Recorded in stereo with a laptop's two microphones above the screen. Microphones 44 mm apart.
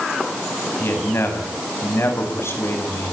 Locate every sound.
0.8 s a man speaking: 65° left (ahead or behind), 6.5 m; by 3.1 s 80° left, 6 m